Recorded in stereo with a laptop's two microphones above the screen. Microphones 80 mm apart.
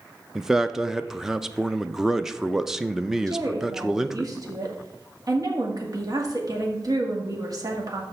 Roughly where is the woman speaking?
Right.